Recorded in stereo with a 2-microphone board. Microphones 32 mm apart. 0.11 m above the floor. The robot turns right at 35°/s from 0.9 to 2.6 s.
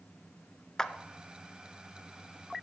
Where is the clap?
15° left (ahead or behind), 1.0 m.